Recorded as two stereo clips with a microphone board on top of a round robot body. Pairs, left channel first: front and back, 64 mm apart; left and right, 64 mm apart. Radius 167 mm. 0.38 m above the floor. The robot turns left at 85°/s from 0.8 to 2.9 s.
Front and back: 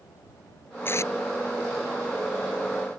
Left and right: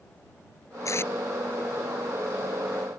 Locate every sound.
0.8 s tape being pulled: 55° left; by 1.1 s 30° left